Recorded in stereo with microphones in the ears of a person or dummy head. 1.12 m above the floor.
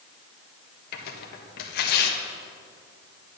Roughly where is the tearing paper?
Left.